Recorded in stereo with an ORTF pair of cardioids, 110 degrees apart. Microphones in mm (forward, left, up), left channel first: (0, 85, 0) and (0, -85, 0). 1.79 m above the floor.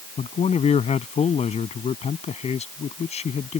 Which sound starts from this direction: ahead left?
A man speaking, at 0.2 s.